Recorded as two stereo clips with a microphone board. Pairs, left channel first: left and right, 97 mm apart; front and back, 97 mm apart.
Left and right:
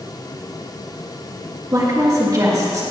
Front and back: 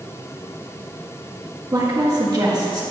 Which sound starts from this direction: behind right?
A woman speaking, at 1.7 s.